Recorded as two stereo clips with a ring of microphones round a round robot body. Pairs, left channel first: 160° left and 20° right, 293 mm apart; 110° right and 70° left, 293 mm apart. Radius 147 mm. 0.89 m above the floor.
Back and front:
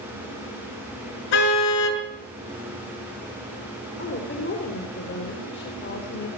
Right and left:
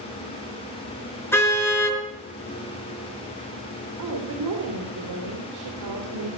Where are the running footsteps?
No running footsteps in this recording.